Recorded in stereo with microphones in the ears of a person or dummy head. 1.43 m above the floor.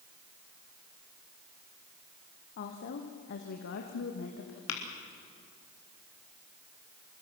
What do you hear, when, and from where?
2.6 s a woman speaking: 50° left (ahead or behind), 1.3 m; by 4.6 s 75° left (ahead or behind), 2 m
4.7 s tapping: 80° left, 3 m